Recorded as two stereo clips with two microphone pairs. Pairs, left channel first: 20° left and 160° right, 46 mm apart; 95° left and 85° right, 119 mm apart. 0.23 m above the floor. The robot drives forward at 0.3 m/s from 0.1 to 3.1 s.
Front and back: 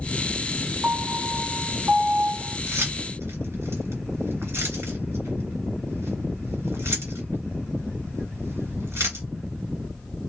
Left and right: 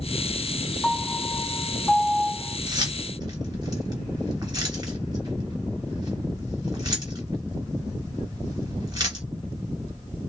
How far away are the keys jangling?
About 2.5 m.